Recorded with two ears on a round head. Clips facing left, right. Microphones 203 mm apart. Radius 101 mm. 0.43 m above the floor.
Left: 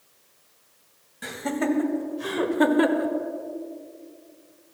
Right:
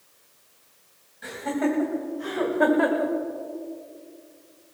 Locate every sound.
1.2 s laughter: 65° left (ahead or behind), 2.5 m; by 3.1 s 35° left (ahead or behind), 1.2 m